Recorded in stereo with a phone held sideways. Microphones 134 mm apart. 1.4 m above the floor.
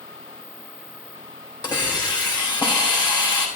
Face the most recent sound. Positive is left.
turn(degrees=30)  # may be behind; listen again after turning